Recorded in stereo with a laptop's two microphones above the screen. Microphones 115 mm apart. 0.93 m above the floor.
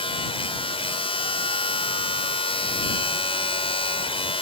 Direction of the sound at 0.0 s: 55° left (ahead or behind).